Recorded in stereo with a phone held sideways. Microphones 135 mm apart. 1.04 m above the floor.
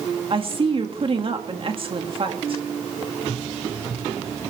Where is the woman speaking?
45° right (ahead or behind), 1.7 m.